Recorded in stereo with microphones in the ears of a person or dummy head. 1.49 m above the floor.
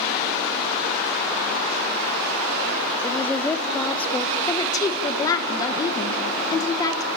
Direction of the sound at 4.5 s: 20° left (ahead or behind).